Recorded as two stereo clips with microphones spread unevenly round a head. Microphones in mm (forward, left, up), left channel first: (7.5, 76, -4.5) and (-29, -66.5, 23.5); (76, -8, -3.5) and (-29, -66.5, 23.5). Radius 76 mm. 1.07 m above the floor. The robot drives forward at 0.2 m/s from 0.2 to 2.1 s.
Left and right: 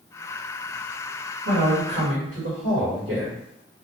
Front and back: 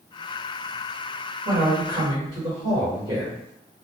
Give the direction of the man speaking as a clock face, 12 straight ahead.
3 o'clock.